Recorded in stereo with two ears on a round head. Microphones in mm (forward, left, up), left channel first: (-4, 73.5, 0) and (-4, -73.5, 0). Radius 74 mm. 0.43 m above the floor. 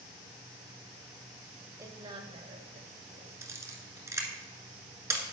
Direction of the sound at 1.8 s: 20° right (ahead or behind).